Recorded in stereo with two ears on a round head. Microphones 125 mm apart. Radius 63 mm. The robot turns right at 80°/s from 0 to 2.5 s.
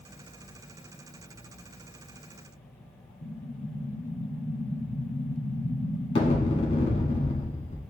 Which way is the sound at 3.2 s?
35° left (ahead or behind).